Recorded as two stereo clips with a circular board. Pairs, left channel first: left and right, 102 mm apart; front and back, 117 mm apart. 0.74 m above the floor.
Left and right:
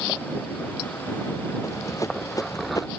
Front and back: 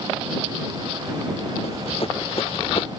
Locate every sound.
1.6 s running footsteps: 30° left; by 2.9 s 35° left